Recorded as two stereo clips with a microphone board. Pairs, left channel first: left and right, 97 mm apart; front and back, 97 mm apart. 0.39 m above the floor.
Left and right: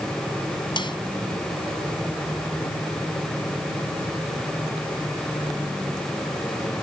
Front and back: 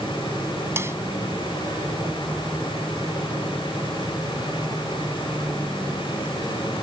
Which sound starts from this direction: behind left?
A snare drum, at 0.8 s.